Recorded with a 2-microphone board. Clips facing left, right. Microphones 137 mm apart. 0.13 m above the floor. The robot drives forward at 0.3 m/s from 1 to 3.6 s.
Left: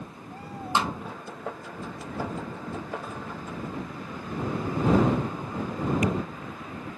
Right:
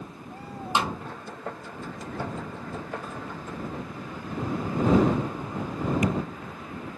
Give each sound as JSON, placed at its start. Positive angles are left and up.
{"t": 0.8, "sound": "a snare drum", "side_deg": -20, "distance_m": 0.8}